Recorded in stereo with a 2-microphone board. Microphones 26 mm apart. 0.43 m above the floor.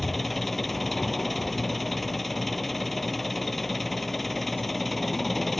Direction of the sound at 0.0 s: 5° left (ahead or behind).